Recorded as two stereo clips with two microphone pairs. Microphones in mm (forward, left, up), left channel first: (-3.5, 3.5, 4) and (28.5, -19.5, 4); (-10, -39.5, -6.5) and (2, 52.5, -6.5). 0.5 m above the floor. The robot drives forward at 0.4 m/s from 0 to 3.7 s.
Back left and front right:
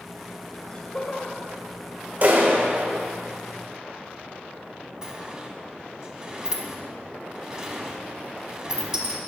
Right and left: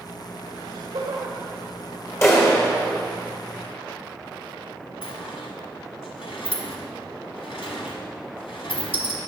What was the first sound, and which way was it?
Laughter, 90° left.